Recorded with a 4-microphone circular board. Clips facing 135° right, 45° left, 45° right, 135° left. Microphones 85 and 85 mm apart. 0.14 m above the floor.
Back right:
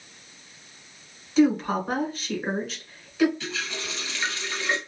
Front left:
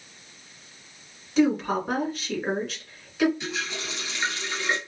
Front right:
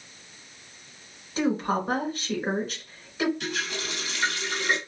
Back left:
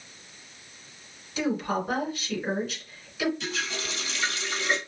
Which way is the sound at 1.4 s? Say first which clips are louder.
Back right 1 dB, front right 2 dB; 45° right.